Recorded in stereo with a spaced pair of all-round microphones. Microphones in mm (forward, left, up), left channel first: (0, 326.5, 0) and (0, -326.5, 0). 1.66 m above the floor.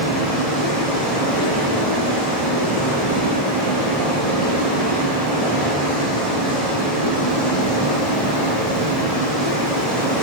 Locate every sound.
0.0 s running water: 40° right (ahead or behind), 5 m